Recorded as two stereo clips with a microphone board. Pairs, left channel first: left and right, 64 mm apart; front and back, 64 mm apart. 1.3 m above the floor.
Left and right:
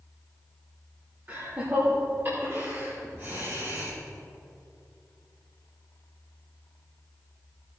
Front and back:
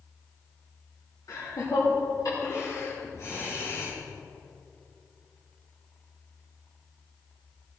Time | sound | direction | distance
1.3 | laughter | 25° right | 4.5 m